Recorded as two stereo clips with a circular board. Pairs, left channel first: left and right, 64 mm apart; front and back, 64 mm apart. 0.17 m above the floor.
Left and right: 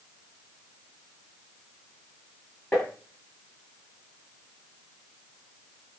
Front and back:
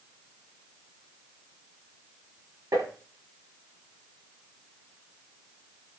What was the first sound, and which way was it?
Tapping, 165° left.